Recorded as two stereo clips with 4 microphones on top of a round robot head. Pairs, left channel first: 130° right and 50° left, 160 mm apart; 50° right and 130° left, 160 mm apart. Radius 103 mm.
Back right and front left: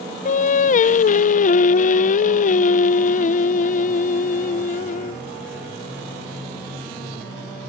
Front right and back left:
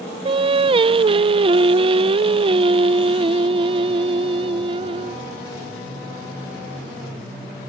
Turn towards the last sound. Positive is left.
turn(degrees=-170)